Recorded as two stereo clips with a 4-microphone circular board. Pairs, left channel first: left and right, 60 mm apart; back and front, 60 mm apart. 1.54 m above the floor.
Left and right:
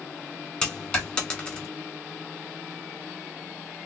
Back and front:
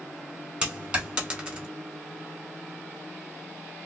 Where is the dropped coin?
40° left, 1.3 m.